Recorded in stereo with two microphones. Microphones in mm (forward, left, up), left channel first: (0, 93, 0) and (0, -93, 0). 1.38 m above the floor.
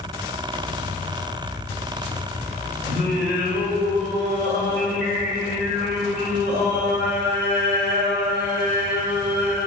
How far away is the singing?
About 3 m.